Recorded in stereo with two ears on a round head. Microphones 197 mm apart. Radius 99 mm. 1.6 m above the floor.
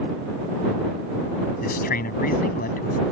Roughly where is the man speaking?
Left.